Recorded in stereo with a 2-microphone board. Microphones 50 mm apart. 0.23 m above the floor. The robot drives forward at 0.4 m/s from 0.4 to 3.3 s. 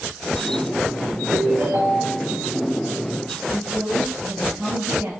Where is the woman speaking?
70° right (ahead or behind), 3.5 m.